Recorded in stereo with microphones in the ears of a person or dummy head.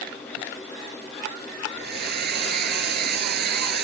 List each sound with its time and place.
1.8 s a hair dryer: 55° right (ahead or behind)